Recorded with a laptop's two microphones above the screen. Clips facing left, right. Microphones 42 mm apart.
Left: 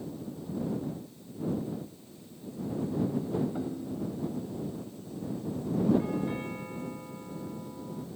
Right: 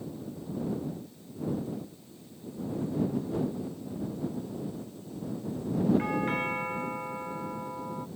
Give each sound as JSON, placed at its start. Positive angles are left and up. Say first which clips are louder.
{"t": 3.5, "sound": "a ringtone", "louder": "left 2 dB", "side_deg": 90}
{"t": 6.0, "sound": "a doorbell", "louder": "right 3 dB", "side_deg": -75}